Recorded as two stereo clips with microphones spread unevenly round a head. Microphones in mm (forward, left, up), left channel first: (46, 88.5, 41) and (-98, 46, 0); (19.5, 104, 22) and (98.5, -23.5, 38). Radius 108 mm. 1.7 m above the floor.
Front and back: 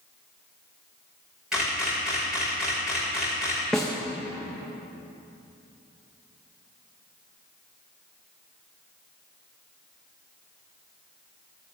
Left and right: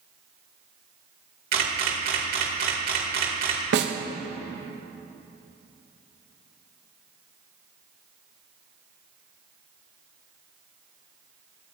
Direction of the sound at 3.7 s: 65° right.